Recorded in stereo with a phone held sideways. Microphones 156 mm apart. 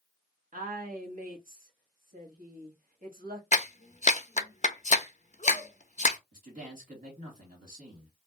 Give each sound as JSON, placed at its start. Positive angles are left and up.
{"t": 0.5, "sound": "a woman speaking", "side_deg": -60, "distance_m": 1.2}
{"t": 3.5, "sound": "a clap", "side_deg": 50, "distance_m": 0.5}
{"t": 6.3, "sound": "a man speaking", "side_deg": -55, "distance_m": 1.7}